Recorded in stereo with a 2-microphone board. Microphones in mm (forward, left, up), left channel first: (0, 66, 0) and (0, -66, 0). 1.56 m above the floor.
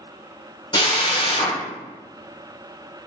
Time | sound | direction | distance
0.7 | a drill | 35° left (ahead or behind) | 0.9 m